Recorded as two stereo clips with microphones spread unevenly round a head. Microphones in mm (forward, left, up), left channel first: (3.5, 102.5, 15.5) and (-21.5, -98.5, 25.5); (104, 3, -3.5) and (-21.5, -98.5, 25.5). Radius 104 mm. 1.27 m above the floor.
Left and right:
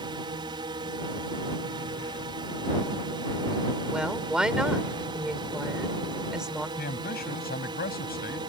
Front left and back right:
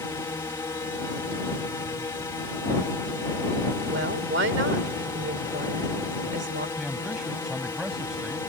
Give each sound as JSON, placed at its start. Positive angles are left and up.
{"t": 0.0, "sound": "a drone", "azimuth_deg": -30}
{"t": 3.9, "sound": "a woman speaking", "azimuth_deg": 175}
{"t": 6.8, "sound": "a man speaking", "azimuth_deg": 130}